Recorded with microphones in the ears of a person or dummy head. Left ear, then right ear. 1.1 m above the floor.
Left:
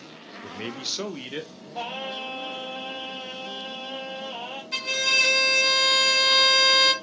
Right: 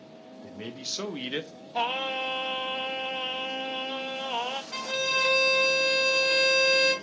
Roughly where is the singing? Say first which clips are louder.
Right 4 dB; right.